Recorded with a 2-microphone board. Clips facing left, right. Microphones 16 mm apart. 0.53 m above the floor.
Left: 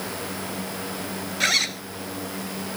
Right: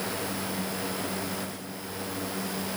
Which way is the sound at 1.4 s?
80° left.